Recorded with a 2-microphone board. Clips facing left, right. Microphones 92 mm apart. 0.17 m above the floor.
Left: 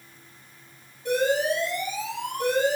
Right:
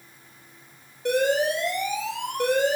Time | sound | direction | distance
1.1 | an alarm | 65° right (ahead or behind) | 3.5 m